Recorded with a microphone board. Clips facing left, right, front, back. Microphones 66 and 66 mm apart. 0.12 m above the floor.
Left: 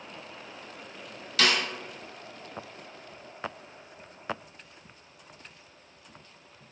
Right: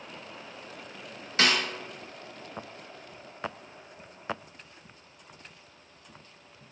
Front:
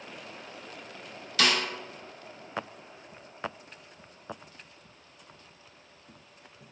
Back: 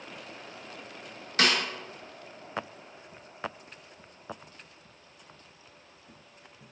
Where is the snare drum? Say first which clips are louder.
Even, even; 140° right, 0.8 m.